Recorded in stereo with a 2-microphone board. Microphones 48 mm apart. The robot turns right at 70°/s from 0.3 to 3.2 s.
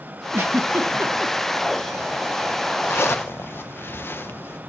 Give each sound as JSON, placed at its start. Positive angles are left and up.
{"t": 0.3, "sound": "a giggle", "side_deg": -45, "distance_m": 1.2}
{"t": 2.8, "sound": "a zipper", "side_deg": 60, "distance_m": 0.8}